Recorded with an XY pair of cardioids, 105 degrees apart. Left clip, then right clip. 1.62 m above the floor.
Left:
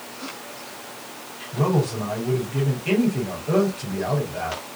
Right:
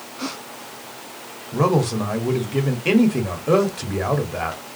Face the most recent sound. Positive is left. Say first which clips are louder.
# right 4 dB
turn(degrees=-65)